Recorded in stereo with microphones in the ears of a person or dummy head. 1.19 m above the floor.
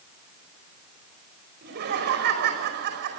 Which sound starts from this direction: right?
Laughter, at 1.6 s.